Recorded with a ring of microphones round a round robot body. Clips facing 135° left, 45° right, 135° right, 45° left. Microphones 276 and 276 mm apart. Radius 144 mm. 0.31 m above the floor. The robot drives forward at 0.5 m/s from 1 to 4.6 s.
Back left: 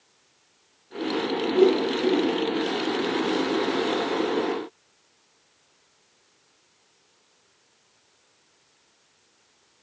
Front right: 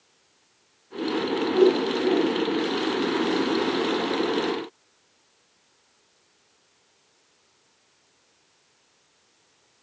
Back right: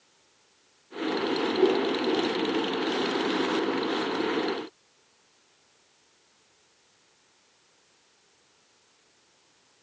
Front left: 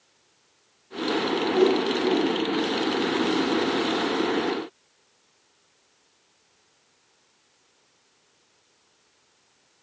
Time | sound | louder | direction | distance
1.5 | a whoosh | even, front left 3 dB | 50° left | 3 m